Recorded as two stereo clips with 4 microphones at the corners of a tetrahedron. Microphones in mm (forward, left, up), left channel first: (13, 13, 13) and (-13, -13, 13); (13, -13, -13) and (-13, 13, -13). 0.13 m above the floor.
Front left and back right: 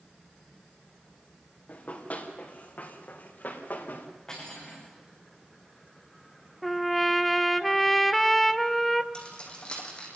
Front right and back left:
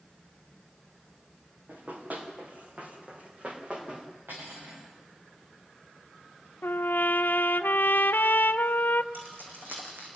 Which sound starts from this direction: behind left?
Cutlery clinking, at 4.3 s.